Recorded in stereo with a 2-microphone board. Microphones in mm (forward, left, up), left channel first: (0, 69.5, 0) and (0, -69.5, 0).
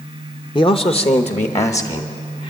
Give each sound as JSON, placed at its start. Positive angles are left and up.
{"t": 0.6, "sound": "a man speaking", "side_deg": 35, "distance_m": 0.7}